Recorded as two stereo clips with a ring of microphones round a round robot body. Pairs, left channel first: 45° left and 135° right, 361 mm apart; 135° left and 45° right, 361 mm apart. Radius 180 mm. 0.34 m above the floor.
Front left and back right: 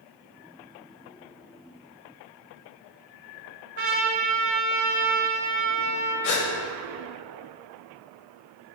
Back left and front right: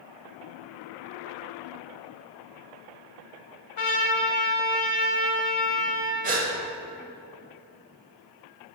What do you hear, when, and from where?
3.8 s a trumpet: 170° left, 1.1 m
6.2 s a gasp: 20° left, 1.0 m